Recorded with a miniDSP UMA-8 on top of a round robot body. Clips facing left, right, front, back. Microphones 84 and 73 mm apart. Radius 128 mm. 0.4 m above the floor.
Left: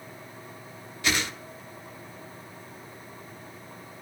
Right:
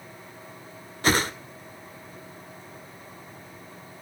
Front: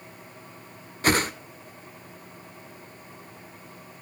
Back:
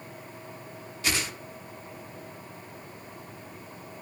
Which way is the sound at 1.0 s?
40° right.